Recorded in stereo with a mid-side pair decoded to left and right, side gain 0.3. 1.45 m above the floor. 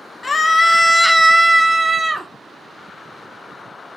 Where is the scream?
55° left, 0.6 m; by 2.3 s 40° right, 0.8 m.